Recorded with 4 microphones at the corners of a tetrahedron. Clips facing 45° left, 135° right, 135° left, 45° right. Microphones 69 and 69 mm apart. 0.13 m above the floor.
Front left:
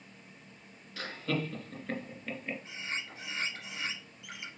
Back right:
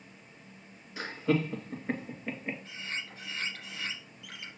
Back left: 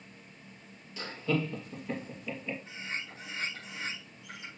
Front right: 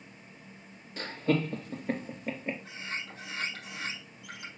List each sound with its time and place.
1.0 s laughter: 70° right, 2.5 m
2.6 s a bird: 25° right, 4.5 m